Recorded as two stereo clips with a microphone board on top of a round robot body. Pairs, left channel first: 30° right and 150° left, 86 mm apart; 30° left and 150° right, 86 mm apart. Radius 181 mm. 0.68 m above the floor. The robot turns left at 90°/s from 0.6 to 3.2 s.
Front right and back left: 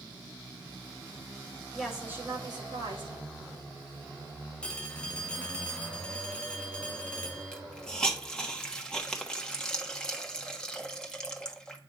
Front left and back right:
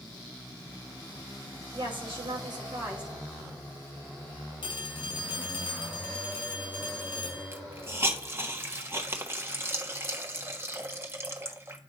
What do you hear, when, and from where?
1.7 s a woman speaking: 110° right, 2.5 m; by 3.1 s 125° left, 2.5 m
4.6 s a phone ringing: 45° left, 1.2 m
7.5 s a hiss: 105° right, 1.4 m